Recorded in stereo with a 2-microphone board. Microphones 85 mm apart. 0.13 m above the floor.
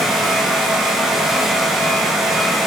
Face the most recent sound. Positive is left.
No sound to turn to.